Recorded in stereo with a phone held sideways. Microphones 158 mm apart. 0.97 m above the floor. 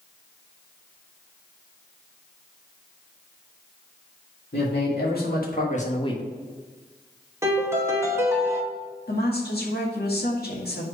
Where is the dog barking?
No dog barking in this recording.